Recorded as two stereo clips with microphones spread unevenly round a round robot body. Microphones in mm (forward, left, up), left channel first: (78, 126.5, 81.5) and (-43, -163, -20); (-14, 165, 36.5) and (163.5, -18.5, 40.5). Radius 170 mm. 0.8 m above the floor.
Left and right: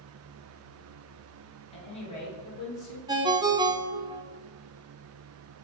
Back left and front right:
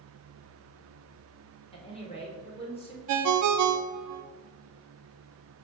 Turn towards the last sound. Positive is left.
turn(degrees=-30)